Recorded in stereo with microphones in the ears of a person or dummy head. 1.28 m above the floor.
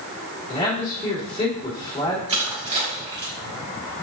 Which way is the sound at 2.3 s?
30° right (ahead or behind).